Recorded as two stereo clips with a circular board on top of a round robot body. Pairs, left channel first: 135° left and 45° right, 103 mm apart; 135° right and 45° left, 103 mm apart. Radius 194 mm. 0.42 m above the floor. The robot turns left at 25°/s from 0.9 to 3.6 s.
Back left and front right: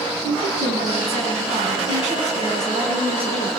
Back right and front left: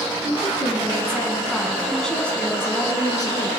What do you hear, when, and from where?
0.2 s a woman speaking: 20° right, 6 m; by 3.5 s 85° right, 6 m